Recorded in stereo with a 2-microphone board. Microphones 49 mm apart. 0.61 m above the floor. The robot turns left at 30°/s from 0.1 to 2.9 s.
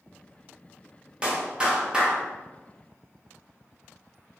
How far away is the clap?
About 0.6 m.